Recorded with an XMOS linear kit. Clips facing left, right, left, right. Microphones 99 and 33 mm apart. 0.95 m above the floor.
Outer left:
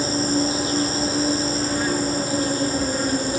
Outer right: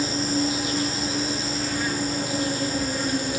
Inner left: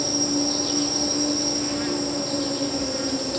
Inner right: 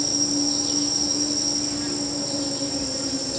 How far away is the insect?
About 0.8 m.